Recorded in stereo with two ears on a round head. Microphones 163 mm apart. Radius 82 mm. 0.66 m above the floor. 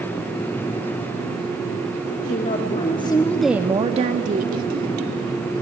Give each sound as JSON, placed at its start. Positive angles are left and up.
{"t": 2.2, "sound": "a woman speaking", "side_deg": 45, "distance_m": 1.9}